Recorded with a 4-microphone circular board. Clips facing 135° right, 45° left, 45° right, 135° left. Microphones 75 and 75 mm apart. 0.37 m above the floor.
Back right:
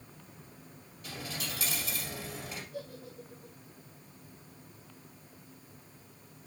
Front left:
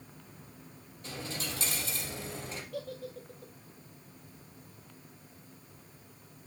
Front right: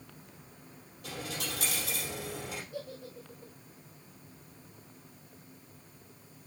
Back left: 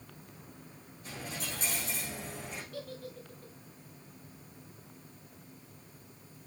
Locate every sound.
1.0 s a dropped coin: 20° right, 3 m
2.7 s a giggle: 30° left, 1.8 m